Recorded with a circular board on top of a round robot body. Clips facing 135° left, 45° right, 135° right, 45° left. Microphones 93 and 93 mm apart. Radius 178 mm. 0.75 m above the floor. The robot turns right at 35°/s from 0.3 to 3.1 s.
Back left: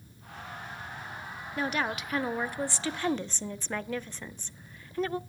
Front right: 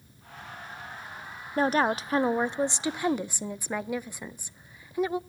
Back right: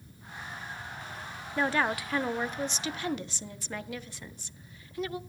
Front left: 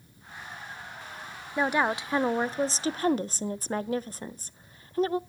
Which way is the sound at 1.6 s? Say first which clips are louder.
Front right 7 dB, front left 2 dB; 25° right.